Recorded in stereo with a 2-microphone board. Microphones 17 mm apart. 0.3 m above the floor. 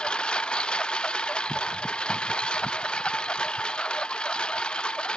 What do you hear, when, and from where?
0.0 s a lawn mower: 80° left